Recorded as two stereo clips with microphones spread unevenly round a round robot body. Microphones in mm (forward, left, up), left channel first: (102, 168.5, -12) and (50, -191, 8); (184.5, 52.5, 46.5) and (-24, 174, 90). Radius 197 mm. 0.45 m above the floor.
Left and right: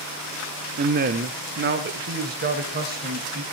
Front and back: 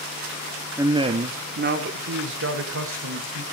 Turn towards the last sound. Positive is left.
turn(degrees=-165)